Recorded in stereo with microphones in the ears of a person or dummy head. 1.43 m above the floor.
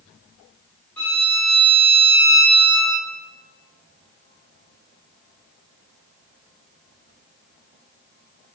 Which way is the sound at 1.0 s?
5° left (ahead or behind).